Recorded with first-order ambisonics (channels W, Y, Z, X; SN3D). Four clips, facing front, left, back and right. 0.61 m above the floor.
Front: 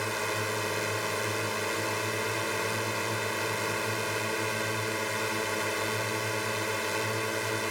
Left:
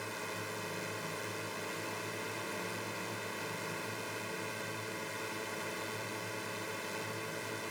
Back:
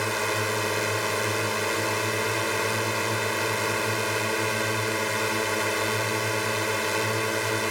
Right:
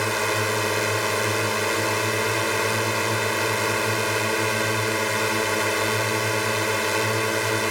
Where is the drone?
110° right.